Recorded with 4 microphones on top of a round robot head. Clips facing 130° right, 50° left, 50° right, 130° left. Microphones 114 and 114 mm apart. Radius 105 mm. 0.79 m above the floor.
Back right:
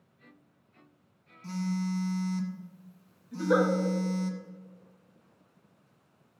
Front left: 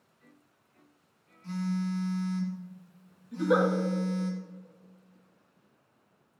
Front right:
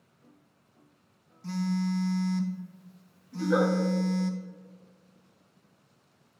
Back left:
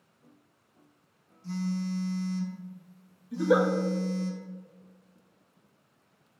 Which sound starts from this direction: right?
A phone buzzing, at 1.4 s.